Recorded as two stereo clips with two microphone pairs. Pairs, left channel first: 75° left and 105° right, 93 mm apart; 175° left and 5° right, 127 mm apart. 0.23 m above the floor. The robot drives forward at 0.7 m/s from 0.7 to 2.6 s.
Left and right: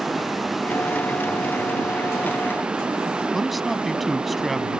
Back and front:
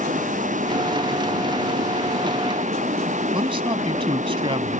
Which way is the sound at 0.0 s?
20° right.